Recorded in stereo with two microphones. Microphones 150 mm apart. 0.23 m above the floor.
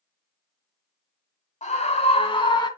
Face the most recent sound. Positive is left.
turn(degrees=30)  # may be behind; listen again after turning